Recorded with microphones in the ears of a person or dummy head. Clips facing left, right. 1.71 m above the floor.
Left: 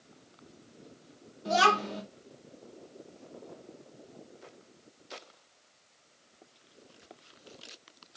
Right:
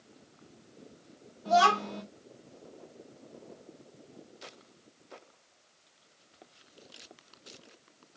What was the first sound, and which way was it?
A child speaking, 30° left (ahead or behind).